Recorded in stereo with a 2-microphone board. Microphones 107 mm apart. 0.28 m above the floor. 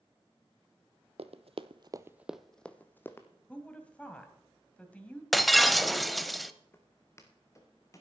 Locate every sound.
1.2 s running footsteps: 75° right (ahead or behind), 0.8 m; by 3.3 s 25° left (ahead or behind), 1.3 m
3.5 s a woman speaking: 10° left (ahead or behind), 1.9 m
5.3 s breaking glass: centre (ahead or behind), 0.6 m
6.7 s footsteps: 20° left (ahead or behind), 1.8 m; by 8.0 s 30° left (ahead or behind), 3 m